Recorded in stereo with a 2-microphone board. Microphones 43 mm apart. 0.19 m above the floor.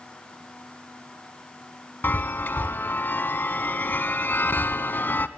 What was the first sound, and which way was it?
A chime, 50° left (ahead or behind).